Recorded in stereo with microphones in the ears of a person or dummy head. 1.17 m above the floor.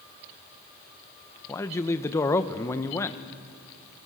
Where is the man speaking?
20° left (ahead or behind), 1.0 m.